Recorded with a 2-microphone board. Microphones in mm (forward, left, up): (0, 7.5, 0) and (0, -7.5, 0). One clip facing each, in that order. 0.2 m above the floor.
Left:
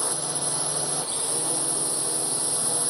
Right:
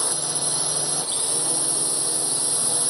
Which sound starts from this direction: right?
A drone, at 0.0 s.